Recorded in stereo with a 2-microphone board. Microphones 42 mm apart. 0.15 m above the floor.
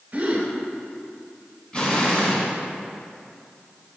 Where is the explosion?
25° left (ahead or behind), 1.4 m.